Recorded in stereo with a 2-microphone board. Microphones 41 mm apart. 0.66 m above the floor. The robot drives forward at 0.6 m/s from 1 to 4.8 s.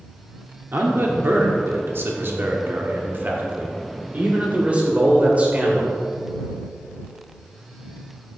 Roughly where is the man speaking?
Right.